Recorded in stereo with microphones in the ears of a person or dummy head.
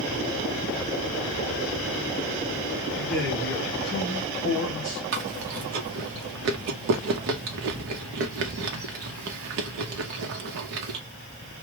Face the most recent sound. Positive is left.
turn(degrees=-60)  # may be behind; listen again after turning